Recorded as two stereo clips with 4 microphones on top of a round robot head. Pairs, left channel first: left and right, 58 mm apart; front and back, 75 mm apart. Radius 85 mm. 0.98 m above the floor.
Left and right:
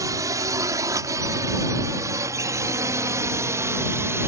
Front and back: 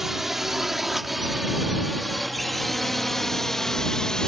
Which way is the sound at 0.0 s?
90° right.